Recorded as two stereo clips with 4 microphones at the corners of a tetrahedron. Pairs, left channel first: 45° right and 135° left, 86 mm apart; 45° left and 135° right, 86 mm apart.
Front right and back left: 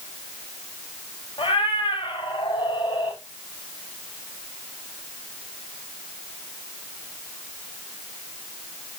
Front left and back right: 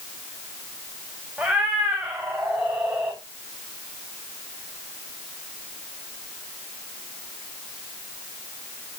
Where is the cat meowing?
55° right, 5.5 m; by 3.2 s 65° right, 6.5 m.